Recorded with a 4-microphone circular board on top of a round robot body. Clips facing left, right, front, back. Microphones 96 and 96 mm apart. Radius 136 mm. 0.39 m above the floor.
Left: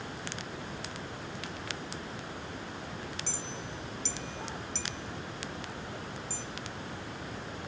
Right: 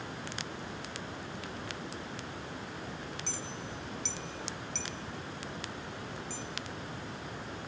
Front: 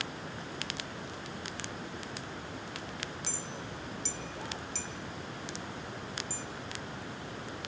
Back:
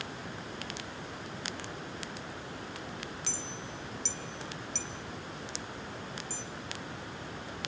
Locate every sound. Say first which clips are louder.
3.3 s a clink: left 1 dB, even; 40° left, 2.5 m